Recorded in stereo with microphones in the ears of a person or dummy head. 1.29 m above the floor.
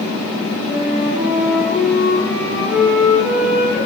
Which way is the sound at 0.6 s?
5° right (ahead or behind).